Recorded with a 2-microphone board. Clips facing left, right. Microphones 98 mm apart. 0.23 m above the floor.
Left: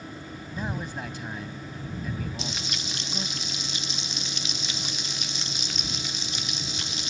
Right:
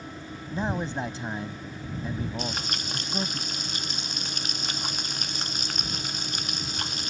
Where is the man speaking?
30° right (ahead or behind).